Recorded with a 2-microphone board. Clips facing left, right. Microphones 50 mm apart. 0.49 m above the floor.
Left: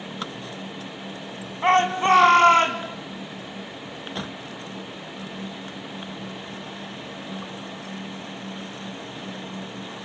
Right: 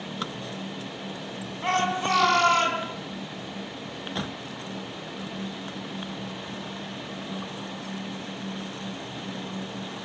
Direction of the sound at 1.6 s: 35° left (ahead or behind).